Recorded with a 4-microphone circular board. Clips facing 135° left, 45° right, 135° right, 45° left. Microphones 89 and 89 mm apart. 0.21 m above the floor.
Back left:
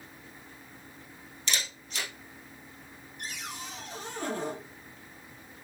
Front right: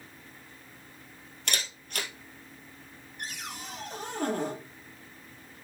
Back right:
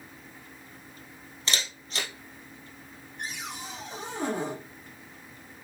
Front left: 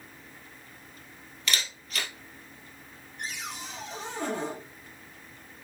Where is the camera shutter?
75° right, 2.0 m.